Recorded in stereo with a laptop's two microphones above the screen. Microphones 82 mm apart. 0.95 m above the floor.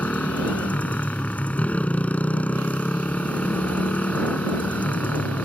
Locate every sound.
0.0 s a motorcycle: 20° left (ahead or behind)